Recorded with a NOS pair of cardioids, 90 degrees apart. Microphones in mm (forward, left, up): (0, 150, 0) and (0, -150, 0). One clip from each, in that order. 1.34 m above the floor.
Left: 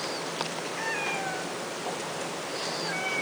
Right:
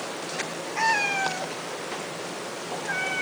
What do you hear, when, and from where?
0.8 s a cat meowing: 55° right, 1.7 m; by 3.2 s 20° right, 2.5 m